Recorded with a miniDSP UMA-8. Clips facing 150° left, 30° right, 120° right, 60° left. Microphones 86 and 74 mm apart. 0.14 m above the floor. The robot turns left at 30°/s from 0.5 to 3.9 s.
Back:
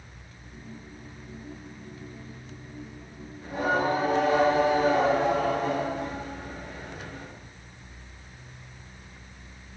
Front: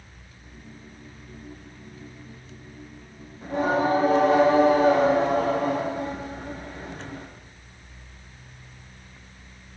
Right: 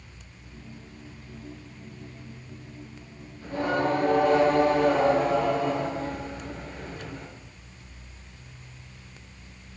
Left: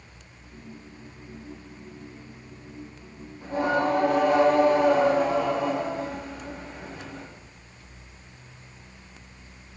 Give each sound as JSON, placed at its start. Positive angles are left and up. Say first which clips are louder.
{"t": 3.4, "sound": "singing", "louder": "front 3 dB, left 2 dB", "azimuth_deg": -5, "distance_m": 3.5}